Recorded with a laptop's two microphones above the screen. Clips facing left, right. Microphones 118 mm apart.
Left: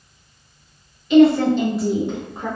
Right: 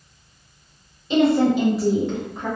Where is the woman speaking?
30° right (ahead or behind), 1.0 m; by 2.5 s 30° left (ahead or behind), 0.9 m.